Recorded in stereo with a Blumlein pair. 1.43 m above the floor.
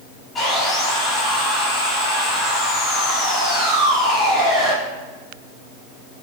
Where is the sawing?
15° left, 3.5 m.